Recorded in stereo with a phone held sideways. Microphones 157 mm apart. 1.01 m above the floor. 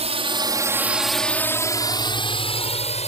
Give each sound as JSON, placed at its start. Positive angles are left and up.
{"t": 0.0, "sound": "a drone", "side_deg": -40}